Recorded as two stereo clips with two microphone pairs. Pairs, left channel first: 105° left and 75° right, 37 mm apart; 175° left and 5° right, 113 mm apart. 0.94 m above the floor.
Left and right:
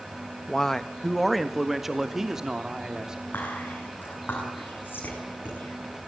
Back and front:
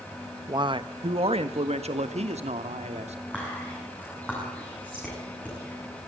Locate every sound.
0.5 s a man speaking: 35° left, 1.2 m; by 3.2 s 5° right, 3 m
3.3 s whispering: 95° left, 9 m